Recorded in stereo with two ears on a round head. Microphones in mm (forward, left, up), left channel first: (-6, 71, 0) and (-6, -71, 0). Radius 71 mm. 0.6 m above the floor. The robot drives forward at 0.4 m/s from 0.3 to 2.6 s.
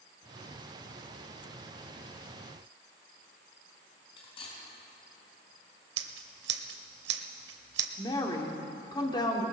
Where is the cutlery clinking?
35° left (ahead or behind), 3.5 m.